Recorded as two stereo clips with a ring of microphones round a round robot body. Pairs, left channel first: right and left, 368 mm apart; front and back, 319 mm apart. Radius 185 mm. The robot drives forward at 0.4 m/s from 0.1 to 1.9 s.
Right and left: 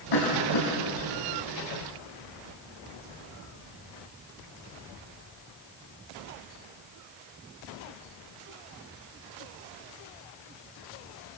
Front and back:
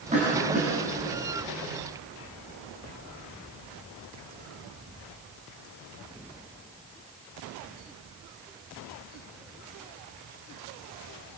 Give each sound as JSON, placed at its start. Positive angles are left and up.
{"t": 0.1, "sound": "a cough", "azimuth_deg": -110, "distance_m": 4.5}